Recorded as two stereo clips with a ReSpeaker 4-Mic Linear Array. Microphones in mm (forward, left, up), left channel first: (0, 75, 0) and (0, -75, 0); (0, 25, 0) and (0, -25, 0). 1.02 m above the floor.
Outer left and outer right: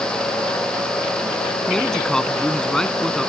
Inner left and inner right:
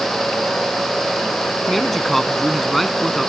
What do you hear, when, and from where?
1.7 s a man speaking: 5° left (ahead or behind)